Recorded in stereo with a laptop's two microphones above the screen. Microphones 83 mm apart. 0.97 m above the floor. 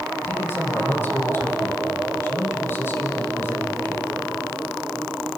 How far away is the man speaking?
About 4.5 m.